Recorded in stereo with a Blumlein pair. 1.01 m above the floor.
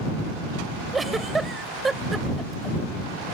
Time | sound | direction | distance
0.9 | a giggle | 10° right | ?